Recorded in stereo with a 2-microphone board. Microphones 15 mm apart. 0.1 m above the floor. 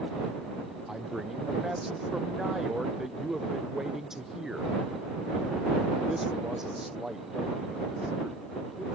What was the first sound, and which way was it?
A man speaking, 25° right (ahead or behind).